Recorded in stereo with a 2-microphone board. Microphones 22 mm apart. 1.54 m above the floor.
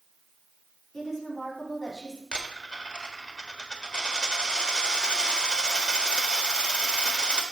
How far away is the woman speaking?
About 5 m.